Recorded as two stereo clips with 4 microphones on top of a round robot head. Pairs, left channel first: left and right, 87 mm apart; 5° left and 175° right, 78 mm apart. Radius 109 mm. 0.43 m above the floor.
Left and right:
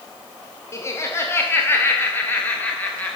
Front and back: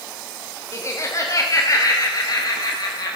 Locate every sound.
0.7 s laughter: 45° left, 2 m; by 3.2 s 20° left, 3 m